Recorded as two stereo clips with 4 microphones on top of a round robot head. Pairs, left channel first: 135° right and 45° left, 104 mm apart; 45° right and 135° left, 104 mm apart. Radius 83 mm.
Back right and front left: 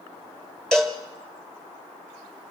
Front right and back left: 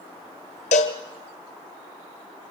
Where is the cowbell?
50° right, 1.2 m.